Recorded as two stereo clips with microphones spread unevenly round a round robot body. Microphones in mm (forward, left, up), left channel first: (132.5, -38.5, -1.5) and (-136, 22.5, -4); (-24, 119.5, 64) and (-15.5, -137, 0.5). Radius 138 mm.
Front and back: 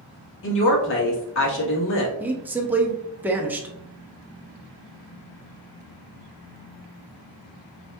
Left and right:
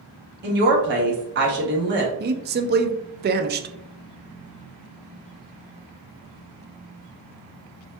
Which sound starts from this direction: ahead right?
A woman speaking, at 0.4 s.